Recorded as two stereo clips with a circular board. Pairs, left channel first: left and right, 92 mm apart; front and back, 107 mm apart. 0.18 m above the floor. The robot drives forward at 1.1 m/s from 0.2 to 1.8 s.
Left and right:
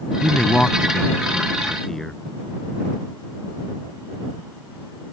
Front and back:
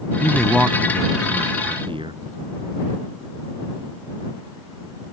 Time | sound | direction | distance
0.2 | a man speaking | 25° left | ?